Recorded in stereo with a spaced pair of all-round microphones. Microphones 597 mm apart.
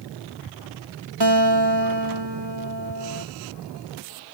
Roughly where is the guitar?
Right.